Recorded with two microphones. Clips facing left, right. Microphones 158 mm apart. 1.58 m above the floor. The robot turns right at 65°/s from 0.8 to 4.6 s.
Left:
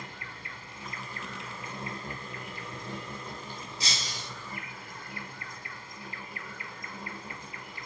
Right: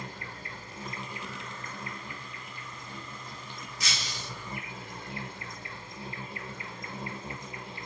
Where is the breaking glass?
30° left, 2.5 m; by 4.3 s 65° left, 2.5 m.